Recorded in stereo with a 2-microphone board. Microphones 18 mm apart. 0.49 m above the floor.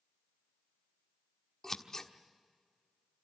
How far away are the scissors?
About 1.3 m.